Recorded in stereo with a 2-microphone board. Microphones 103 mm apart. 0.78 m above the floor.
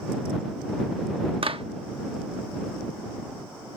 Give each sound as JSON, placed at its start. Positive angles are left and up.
{"t": 1.4, "sound": "a clap", "side_deg": -65}